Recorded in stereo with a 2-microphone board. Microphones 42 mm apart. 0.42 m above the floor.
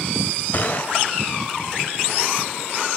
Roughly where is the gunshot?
Left.